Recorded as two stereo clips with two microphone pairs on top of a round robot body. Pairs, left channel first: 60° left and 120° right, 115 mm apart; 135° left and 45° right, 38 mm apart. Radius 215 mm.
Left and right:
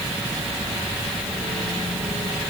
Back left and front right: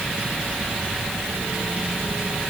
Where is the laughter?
I don't hear laughter.